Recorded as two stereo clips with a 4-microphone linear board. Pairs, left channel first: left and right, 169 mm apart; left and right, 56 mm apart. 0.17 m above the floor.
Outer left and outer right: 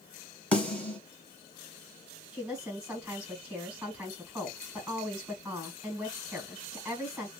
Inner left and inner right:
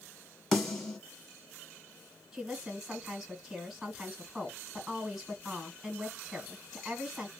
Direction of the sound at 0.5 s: 5° left (ahead or behind).